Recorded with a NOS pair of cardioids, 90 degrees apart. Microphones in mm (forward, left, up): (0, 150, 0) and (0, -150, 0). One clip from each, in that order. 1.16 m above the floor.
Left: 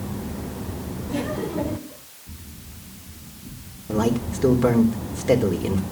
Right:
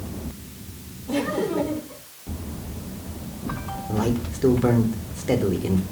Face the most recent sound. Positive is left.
turn(degrees=15)